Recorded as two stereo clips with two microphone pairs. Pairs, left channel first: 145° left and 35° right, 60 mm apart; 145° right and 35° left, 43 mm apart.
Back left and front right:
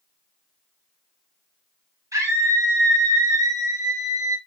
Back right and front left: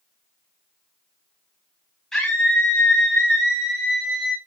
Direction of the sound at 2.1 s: 70° right.